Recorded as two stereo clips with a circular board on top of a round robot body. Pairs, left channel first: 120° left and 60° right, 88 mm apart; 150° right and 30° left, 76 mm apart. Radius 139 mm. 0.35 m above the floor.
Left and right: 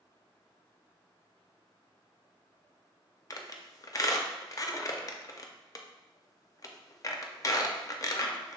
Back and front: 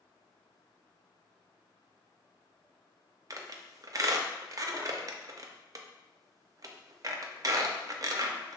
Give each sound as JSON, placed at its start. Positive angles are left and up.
{"t": 3.3, "sound": "a squeak", "azimuth_deg": 70, "distance_m": 0.5}